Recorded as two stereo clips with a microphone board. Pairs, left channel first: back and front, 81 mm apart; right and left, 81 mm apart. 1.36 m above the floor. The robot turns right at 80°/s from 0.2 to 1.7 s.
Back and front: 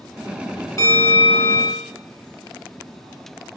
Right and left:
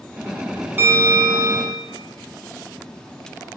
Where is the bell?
150° left, 0.7 m; by 1.8 s 140° right, 0.7 m.